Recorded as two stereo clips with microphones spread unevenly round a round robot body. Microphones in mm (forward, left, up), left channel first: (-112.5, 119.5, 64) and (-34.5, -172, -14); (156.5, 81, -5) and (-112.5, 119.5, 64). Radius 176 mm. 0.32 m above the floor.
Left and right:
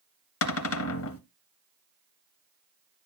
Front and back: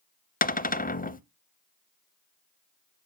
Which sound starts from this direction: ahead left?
A cupboard door, at 0.4 s.